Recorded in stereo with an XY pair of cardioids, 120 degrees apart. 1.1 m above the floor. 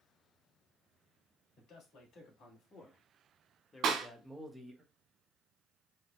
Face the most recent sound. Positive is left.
turn(degrees=-70)